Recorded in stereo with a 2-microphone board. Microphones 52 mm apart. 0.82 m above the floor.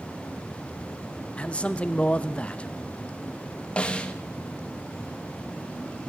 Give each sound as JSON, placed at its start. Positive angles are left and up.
{"t": 1.4, "sound": "a man speaking", "side_deg": 25, "distance_m": 0.6}
{"t": 3.8, "sound": "a snare drum", "side_deg": 20, "distance_m": 1.0}